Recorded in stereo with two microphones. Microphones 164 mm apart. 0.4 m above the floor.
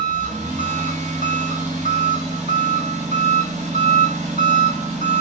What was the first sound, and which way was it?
An engine running, 45° right (ahead or behind).